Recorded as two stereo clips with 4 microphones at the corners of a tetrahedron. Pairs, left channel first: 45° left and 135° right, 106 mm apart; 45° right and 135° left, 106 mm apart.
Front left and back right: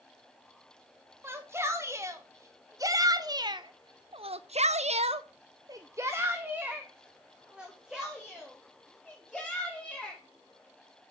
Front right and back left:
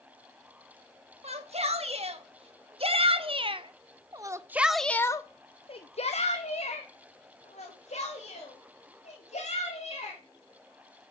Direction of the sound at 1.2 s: 155° left.